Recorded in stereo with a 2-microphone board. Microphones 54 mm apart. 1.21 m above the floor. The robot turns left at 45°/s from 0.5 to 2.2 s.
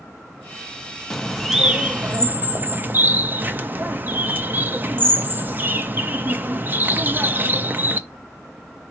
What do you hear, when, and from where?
1.1 s a bird: 5° left, 0.6 m; by 8.0 s 45° right, 0.6 m